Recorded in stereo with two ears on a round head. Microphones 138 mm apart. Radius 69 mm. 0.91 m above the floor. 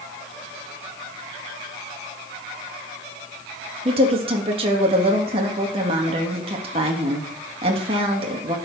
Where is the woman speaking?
40° right (ahead or behind), 1.5 m.